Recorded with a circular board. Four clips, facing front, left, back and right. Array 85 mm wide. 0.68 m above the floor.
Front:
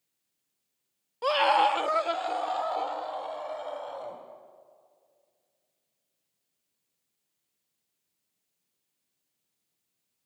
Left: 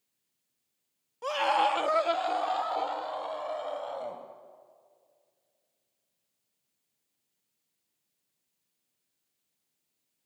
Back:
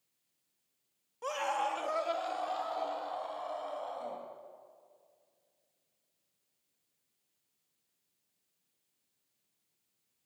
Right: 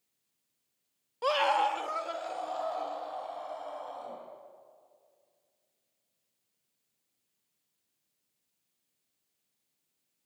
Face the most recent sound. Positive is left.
turn(degrees=70)